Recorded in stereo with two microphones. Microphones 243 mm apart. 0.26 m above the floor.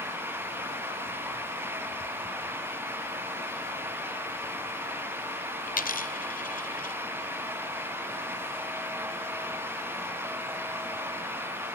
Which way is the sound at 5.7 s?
35° left (ahead or behind).